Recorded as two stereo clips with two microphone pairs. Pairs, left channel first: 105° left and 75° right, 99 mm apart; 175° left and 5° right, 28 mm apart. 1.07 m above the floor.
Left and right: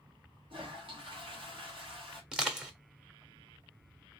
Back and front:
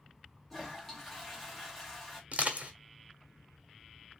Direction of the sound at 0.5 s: 105° right.